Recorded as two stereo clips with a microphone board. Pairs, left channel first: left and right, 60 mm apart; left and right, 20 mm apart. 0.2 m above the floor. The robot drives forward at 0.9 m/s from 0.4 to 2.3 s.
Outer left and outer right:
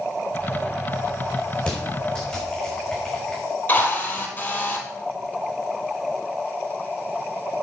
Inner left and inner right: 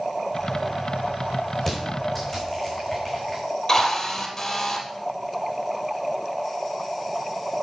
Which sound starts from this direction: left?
A drill, at 3.7 s.